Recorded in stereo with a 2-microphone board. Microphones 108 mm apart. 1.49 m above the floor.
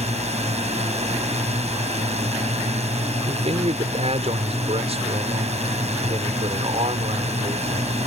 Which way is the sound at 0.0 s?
85° right.